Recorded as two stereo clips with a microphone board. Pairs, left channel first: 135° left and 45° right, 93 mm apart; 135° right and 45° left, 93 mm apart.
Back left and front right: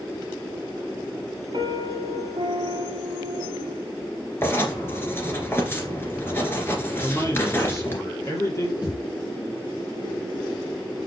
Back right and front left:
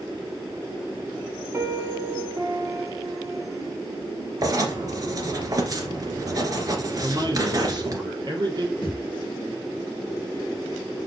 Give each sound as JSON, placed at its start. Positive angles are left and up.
{"t": 1.5, "sound": "a piano", "azimuth_deg": -15, "distance_m": 1.7}
{"t": 4.4, "sound": "writing", "azimuth_deg": 75, "distance_m": 2.0}
{"t": 7.0, "sound": "a man speaking", "azimuth_deg": 80, "distance_m": 3.0}
{"t": 8.8, "sound": "a thud", "azimuth_deg": 175, "distance_m": 2.5}